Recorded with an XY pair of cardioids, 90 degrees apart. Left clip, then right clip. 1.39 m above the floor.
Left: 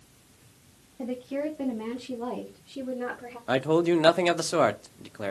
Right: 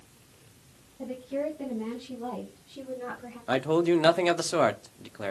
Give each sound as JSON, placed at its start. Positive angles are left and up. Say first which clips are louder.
{"t": 1.0, "sound": "a woman speaking", "louder": "left 1 dB", "azimuth_deg": 65, "distance_m": 1.9}
{"t": 3.5, "sound": "a man speaking", "louder": "left 1 dB", "azimuth_deg": 15, "distance_m": 0.5}